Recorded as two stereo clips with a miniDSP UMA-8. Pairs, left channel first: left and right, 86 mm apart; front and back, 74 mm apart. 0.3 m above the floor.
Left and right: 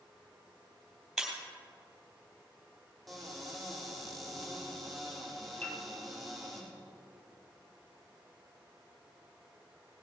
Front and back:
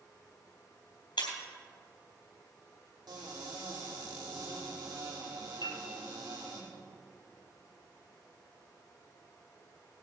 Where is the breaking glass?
Straight ahead, 3 m.